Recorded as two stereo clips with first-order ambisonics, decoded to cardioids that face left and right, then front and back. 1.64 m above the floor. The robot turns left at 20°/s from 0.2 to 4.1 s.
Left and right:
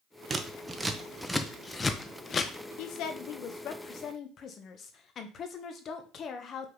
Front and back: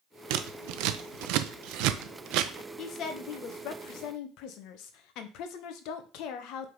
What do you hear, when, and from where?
0.3 s scissors: 160° right, 0.8 m; by 2.5 s 155° left, 0.8 m
2.8 s a woman speaking: 55° left, 1.3 m; by 6.7 s 30° left, 1.3 m